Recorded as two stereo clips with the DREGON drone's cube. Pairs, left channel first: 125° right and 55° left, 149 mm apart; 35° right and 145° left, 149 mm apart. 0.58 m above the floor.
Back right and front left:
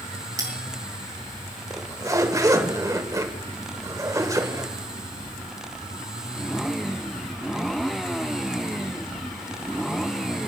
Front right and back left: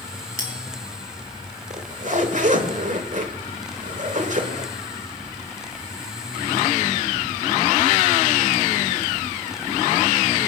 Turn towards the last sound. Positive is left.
turn(degrees=120)